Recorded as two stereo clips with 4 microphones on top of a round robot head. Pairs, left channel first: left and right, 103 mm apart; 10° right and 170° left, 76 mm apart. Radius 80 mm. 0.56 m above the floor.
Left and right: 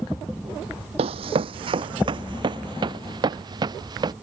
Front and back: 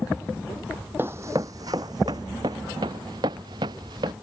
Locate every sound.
1.0 s running footsteps: 115° right; by 4.1 s 140° right